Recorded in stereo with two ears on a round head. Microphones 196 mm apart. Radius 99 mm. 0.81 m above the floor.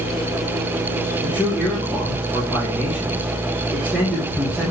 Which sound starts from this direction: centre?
A man speaking, at 1.2 s.